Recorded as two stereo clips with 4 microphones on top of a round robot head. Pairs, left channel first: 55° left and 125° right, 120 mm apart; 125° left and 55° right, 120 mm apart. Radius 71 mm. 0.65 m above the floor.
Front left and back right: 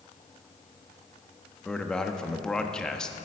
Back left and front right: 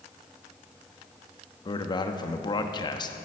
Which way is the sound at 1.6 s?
135° left.